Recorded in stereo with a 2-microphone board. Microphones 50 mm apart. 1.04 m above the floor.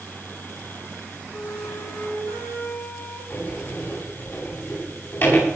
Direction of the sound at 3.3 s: 50° left (ahead or behind).